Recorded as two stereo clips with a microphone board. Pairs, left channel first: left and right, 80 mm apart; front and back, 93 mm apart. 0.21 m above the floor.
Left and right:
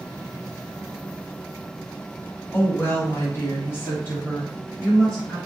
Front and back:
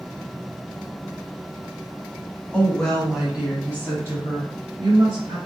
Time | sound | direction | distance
2.5 | a woman speaking | 60° left | 1.6 m